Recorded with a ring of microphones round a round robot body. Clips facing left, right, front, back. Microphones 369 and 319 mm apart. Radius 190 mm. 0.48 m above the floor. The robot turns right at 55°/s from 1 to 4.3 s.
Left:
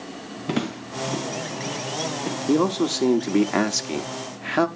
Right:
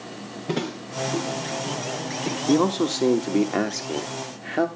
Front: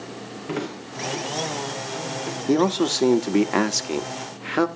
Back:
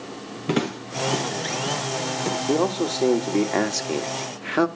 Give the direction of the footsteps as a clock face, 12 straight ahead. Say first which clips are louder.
Left 2 dB, back 5 dB; 7 o'clock.